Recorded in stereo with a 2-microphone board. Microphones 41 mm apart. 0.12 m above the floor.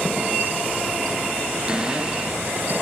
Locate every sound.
1.7 s a cupboard door: 20° right (ahead or behind), 1.3 m